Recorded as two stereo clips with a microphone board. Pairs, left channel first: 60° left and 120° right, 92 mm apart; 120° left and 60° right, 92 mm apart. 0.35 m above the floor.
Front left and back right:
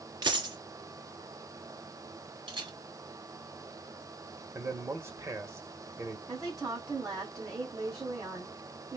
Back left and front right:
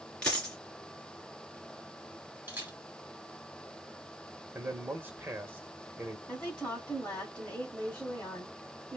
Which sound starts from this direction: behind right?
A camera shutter, at 2.5 s.